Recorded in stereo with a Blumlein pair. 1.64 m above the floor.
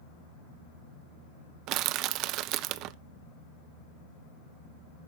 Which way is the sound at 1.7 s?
40° right.